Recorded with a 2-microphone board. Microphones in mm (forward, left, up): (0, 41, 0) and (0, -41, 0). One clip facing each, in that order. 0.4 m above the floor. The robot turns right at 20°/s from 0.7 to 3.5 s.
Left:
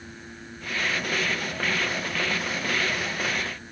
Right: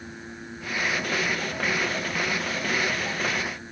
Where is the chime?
No chime in this recording.